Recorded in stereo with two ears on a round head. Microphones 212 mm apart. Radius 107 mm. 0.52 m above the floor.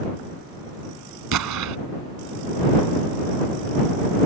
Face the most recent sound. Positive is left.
turn(degrees=-85)